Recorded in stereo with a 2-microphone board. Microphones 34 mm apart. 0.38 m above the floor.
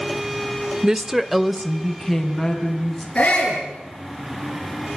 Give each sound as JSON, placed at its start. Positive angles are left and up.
{"t": 0.8, "sound": "a woman speaking", "side_deg": -20, "distance_m": 0.8}
{"t": 3.1, "sound": "a shout", "side_deg": 30, "distance_m": 7.0}